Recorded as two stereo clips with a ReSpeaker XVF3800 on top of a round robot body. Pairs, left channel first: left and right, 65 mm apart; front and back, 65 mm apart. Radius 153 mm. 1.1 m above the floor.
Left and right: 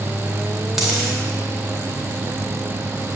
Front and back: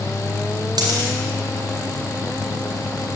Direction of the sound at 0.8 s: 175° right.